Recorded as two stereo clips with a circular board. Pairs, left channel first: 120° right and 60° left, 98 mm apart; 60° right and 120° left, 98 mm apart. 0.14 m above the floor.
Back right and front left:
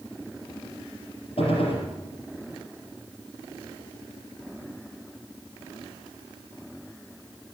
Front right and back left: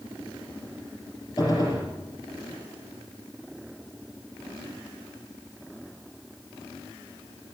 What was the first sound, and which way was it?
A gunshot, 110° right.